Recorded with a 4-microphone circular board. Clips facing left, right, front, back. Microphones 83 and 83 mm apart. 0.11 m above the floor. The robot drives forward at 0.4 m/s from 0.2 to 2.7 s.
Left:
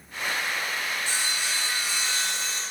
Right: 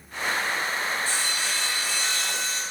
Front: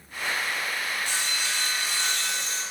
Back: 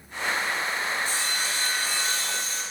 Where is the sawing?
20° left, 8 m; by 2.6 s 25° left, 7.5 m.